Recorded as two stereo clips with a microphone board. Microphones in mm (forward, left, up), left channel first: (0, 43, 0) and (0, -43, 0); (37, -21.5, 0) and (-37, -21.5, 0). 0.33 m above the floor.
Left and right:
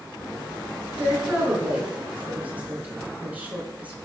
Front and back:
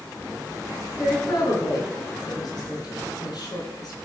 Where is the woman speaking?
20° right, 4.5 m.